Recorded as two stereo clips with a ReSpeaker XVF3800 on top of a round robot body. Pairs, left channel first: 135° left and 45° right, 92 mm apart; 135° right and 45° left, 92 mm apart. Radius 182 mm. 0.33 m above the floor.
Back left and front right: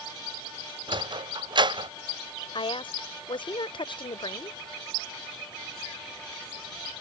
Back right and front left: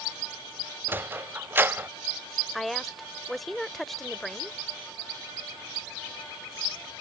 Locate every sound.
0.9 s a sliding door: 20° right
2.5 s a woman speaking: 135° left